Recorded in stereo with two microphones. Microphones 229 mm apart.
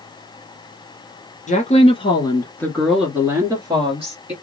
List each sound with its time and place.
1.5 s a woman speaking: 35° left (ahead or behind), 1.3 m; by 4.3 s 30° right (ahead or behind), 1.4 m